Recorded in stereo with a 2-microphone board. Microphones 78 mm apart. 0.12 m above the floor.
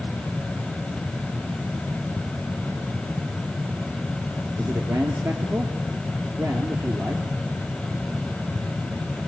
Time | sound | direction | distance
4.6 | a man speaking | 35° right (ahead or behind) | 3 m